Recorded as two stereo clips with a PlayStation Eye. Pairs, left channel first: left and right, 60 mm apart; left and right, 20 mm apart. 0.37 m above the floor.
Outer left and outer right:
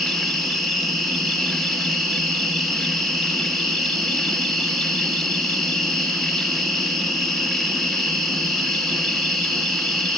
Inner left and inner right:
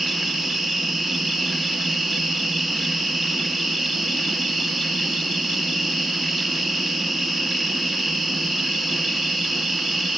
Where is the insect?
5° left (ahead or behind), 4.5 m.